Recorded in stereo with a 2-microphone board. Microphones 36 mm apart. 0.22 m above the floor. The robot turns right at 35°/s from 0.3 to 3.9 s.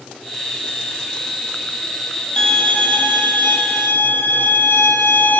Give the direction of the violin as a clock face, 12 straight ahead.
11 o'clock.